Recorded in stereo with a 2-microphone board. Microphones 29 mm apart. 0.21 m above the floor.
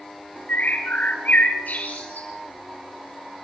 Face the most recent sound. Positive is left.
turn(degrees=70)  # may be behind; listen again after turning